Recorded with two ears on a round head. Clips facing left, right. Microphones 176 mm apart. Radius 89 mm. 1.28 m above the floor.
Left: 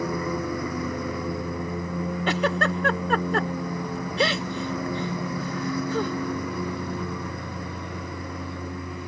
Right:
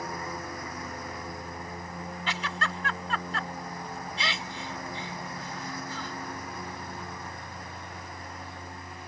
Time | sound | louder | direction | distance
0.0 | a lawn mower | left 10 dB | 70° left (ahead or behind) | ?
2.3 | a giggle | left 11 dB | 45° left (ahead or behind) | ?